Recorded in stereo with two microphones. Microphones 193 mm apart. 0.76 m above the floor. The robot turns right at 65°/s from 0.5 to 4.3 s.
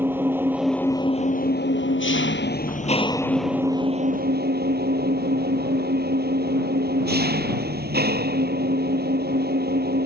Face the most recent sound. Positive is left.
turn(degrees=-125)